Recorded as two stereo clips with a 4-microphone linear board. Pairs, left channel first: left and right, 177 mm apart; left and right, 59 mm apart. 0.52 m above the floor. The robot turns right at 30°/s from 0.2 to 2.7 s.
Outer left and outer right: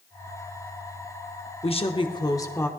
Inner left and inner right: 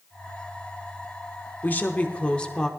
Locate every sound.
1.6 s a woman speaking: 130° left, 1.0 m; by 2.7 s 165° left, 1.0 m